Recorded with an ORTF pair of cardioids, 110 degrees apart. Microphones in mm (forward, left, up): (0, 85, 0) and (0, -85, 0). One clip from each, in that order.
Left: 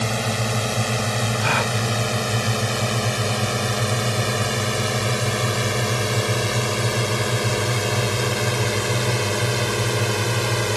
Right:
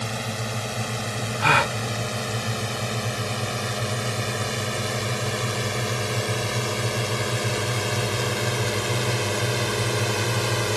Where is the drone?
35° left; by 10.8 s 15° left.